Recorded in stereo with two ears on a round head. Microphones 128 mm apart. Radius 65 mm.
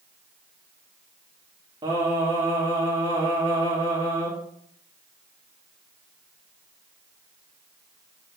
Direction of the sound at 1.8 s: 30° right (ahead or behind).